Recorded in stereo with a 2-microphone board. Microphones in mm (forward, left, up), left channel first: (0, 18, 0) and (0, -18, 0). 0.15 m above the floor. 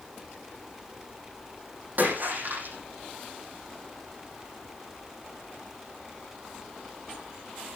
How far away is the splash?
About 7.5 m.